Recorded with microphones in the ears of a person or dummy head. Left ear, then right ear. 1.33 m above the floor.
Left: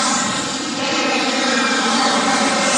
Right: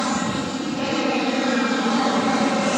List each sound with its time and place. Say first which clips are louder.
0.0 s an aircraft: left 5 dB; 65° left (ahead or behind)